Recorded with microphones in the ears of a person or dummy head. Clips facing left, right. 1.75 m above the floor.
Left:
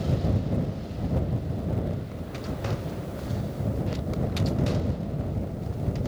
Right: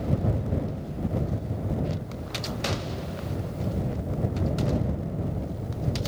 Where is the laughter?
I don't hear laughter.